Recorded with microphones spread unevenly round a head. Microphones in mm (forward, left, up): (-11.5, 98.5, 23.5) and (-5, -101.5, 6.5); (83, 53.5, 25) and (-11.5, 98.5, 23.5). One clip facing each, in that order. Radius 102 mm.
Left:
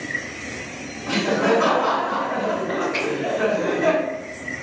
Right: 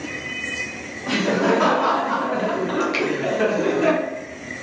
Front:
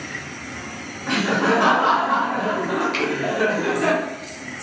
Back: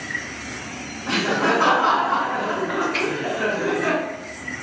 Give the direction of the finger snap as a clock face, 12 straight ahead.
1 o'clock.